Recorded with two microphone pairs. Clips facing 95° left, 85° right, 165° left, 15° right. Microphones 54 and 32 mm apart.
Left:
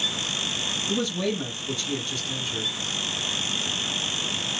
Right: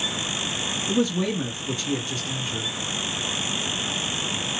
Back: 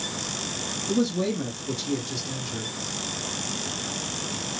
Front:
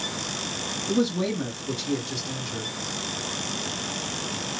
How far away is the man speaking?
About 1.5 m.